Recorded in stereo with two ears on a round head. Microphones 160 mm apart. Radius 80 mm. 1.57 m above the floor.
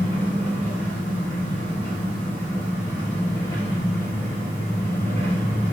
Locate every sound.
0.0 s an engine running: 15° left (ahead or behind), 1.6 m